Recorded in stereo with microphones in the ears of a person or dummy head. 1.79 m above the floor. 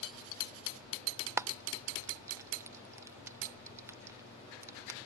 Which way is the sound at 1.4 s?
15° right (ahead or behind).